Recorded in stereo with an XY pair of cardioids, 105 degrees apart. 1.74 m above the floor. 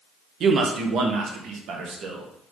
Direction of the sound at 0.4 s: 65° right.